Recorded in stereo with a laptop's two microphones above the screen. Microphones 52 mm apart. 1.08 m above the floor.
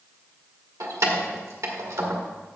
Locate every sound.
0.8 s keys jangling: 85° right, 1.7 m